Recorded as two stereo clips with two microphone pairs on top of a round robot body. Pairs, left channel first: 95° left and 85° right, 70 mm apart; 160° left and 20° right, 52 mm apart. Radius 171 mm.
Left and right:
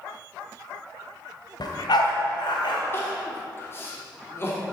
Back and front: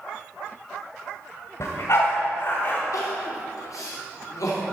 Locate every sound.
1.6 s a dog barking: 130° left, 1.9 m; by 2.8 s 110° left, 2.5 m
2.9 s crying: 150° left, 2.5 m